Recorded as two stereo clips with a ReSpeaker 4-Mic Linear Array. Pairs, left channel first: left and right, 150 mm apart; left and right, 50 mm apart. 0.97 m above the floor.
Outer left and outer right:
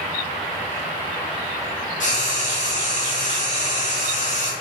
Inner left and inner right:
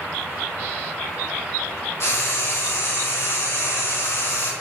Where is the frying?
55° left (ahead or behind), 2 m.